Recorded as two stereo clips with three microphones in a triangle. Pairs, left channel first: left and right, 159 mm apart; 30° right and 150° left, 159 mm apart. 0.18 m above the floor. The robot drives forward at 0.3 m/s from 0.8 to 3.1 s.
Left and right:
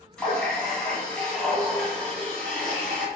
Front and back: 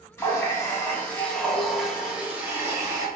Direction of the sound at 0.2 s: 15° left.